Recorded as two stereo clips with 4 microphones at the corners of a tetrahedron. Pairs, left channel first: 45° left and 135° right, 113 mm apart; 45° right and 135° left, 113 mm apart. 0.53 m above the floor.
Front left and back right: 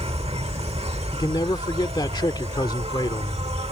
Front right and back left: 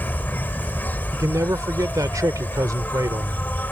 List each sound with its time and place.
0.0 s an insect: 120° right
1.1 s a man speaking: 85° left